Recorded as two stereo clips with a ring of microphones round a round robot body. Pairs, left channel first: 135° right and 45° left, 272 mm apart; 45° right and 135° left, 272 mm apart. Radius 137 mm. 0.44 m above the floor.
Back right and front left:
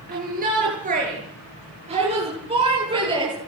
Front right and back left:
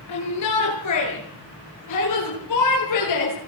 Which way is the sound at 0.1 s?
15° right.